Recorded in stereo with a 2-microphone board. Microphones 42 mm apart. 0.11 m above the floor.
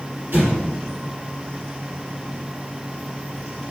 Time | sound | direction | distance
0.3 | an explosion | 55° right (ahead or behind) | 1.8 m